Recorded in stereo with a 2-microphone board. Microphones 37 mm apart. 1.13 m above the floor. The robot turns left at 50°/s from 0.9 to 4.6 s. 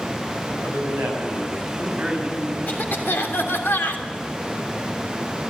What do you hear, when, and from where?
0.5 s a man speaking: 90° right, 6.5 m; by 2.6 s 170° right, 6.5 m
2.7 s a cough: 125° left, 3 m; by 4.0 s 55° left, 3 m